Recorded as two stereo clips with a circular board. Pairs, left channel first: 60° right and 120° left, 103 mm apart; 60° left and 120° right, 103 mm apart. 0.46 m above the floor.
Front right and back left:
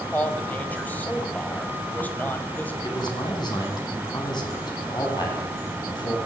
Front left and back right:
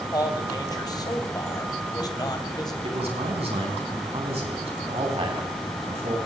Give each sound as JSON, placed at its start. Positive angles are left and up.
{"t": 0.1, "sound": "a man speaking", "azimuth_deg": 10, "distance_m": 2.5}
{"t": 2.8, "sound": "a man speaking", "azimuth_deg": -105, "distance_m": 4.5}